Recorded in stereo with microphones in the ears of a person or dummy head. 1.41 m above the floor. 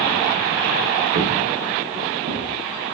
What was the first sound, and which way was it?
Footsteps, 40° right (ahead or behind).